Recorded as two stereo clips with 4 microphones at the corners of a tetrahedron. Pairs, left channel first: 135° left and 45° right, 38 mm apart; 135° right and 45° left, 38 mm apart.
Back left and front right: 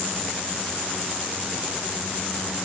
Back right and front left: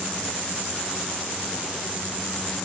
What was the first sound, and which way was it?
Only background noise.